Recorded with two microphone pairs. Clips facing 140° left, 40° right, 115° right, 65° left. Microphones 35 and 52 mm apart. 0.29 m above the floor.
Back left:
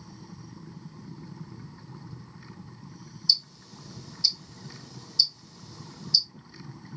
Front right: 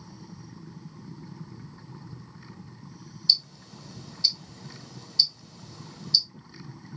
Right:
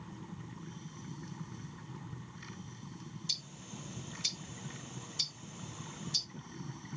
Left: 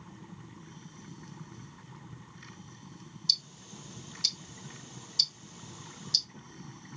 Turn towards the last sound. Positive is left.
turn(degrees=-60)